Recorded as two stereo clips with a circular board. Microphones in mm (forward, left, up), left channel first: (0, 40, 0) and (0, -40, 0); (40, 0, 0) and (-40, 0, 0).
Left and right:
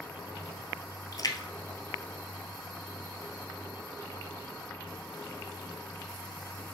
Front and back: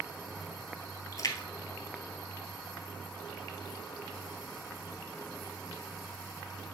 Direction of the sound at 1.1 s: 45° left.